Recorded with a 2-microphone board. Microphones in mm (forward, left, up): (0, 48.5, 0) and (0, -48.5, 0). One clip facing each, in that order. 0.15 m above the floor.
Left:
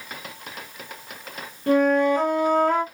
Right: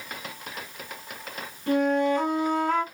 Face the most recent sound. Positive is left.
turn(degrees=45)  # may be behind; listen again after turning